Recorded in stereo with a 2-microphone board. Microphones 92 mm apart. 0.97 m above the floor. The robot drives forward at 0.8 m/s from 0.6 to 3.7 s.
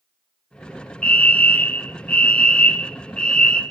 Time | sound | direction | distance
1.0 | a fire alarm | 15° left (ahead or behind) | 1.3 m